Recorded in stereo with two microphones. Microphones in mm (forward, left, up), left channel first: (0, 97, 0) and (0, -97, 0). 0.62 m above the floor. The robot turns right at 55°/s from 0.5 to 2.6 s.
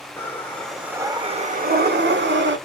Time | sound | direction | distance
0.2 | breathing | 170° left | 0.6 m